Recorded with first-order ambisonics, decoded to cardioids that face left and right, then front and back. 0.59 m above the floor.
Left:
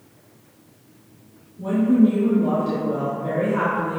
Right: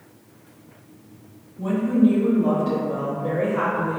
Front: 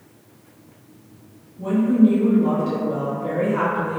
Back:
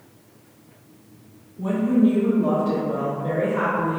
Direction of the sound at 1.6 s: 130° right.